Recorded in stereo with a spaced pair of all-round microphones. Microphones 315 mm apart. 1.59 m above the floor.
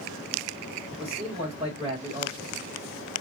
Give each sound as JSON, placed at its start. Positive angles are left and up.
{"t": 0.9, "sound": "a man speaking", "side_deg": -20, "distance_m": 2.5}